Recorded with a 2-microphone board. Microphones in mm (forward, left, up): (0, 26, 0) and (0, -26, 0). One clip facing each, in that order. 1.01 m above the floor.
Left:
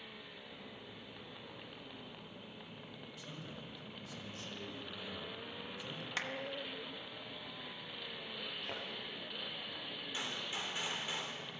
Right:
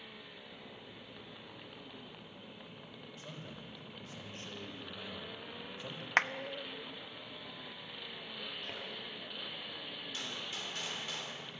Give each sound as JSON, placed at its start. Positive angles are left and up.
{"t": 3.2, "sound": "a man speaking", "side_deg": -40, "distance_m": 4.0}
{"t": 6.2, "sound": "a clap", "side_deg": -65, "distance_m": 0.6}
{"t": 8.6, "sound": "a thud", "side_deg": 5, "distance_m": 5.0}
{"t": 10.1, "sound": "a gunshot", "side_deg": 15, "distance_m": 3.0}